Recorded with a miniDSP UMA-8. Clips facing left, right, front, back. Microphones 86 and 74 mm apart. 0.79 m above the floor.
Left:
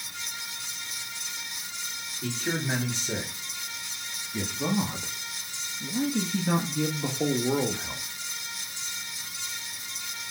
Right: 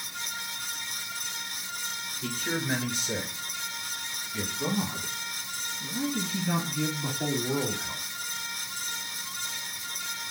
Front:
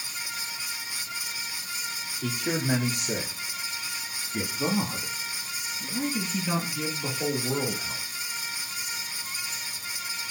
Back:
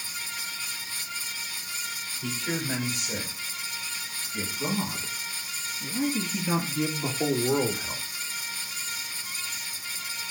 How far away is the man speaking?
About 3 m.